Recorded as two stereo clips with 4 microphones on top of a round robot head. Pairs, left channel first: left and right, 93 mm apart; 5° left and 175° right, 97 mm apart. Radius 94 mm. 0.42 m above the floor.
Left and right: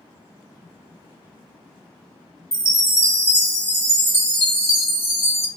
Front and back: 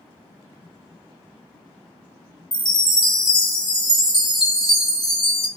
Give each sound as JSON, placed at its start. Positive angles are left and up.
{"t": 2.5, "sound": "a chime", "azimuth_deg": 30, "distance_m": 1.2}